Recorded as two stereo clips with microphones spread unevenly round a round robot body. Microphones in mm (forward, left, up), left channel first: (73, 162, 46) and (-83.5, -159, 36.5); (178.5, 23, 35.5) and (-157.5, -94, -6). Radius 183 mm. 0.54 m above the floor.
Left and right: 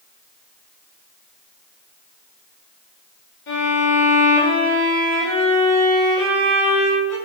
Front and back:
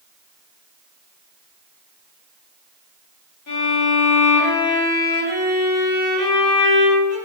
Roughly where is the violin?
Ahead left.